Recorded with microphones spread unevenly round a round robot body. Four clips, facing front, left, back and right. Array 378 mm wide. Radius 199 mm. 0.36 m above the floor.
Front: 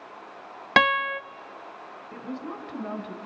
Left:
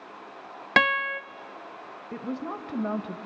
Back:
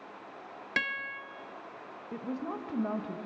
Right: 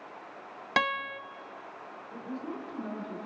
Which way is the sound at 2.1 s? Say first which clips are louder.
Left 5 dB, even; 105° left.